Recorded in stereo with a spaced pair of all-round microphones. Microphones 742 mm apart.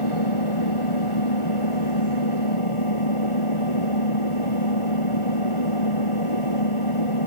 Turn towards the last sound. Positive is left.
turn(degrees=40)  # may be behind; listen again after turning